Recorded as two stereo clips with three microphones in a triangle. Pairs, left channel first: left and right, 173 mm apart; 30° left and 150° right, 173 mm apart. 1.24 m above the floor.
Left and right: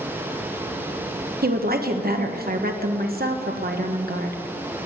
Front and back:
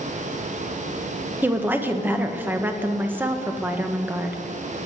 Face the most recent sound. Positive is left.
turn(degrees=-70)